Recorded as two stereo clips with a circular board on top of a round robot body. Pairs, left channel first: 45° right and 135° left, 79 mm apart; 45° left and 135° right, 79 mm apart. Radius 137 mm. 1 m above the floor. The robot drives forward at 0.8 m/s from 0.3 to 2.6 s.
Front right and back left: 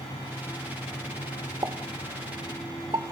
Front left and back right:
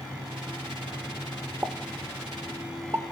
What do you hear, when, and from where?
1.6 s a pop: 165° left, 1.3 m; by 3.0 s 170° left, 2.0 m